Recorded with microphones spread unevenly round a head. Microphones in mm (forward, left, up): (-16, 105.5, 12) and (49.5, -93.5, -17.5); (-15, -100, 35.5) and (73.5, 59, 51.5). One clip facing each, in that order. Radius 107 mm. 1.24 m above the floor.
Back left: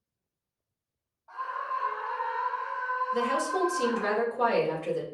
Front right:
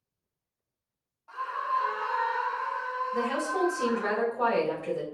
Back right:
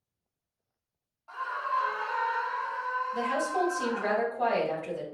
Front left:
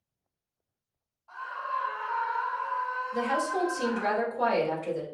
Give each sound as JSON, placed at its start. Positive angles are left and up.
{"t": 1.3, "sound": "a scream", "azimuth_deg": -115, "distance_m": 1.0}
{"t": 3.1, "sound": "a woman speaking", "azimuth_deg": 60, "distance_m": 2.0}